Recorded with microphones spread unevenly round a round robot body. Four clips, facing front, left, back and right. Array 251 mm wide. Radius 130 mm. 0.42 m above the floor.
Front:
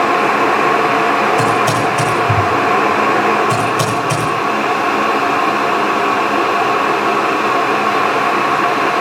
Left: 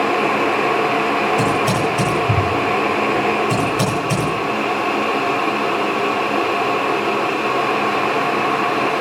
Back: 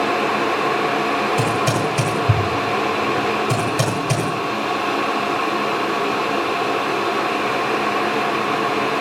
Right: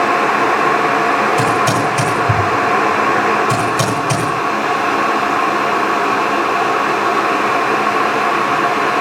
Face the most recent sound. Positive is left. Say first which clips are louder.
# right 3 dB, front 6 dB
turn(degrees=-175)